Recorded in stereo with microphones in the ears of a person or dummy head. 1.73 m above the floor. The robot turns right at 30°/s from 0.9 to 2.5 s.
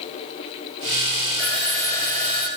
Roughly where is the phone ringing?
Ahead.